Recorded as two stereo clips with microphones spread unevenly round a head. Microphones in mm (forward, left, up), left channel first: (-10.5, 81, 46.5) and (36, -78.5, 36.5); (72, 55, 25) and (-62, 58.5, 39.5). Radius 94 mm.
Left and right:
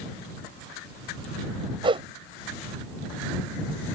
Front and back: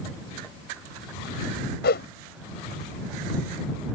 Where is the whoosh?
10° right.